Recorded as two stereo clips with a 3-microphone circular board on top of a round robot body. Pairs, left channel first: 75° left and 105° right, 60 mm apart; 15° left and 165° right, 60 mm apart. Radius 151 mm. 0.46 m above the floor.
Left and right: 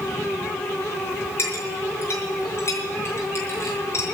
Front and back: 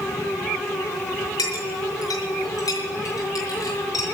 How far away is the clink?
About 6 m.